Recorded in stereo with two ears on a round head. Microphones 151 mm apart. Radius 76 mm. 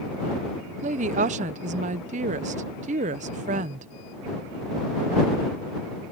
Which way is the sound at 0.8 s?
45° right (ahead or behind).